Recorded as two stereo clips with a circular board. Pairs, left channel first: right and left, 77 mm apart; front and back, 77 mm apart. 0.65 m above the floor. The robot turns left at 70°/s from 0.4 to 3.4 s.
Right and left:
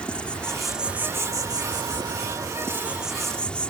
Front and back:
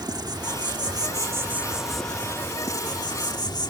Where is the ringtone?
I don't hear a ringtone.